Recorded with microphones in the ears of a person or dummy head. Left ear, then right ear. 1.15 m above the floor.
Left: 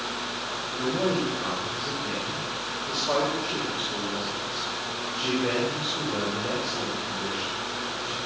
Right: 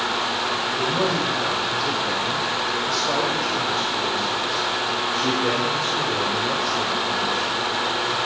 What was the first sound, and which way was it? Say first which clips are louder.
A man speaking: right 1 dB; 65° right (ahead or behind).